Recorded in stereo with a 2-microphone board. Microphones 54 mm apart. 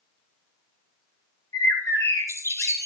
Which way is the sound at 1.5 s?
75° left (ahead or behind).